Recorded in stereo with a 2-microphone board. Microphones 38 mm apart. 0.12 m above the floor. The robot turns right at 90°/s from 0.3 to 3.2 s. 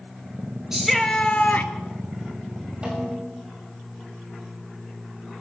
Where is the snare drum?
155° right, 6.5 m; by 3.5 s 120° right, 6.5 m.